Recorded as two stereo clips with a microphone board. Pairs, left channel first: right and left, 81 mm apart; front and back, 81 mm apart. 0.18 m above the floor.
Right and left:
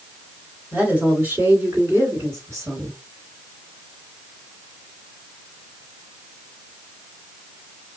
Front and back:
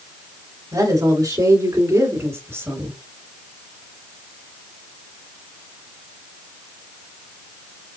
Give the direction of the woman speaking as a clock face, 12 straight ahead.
7 o'clock.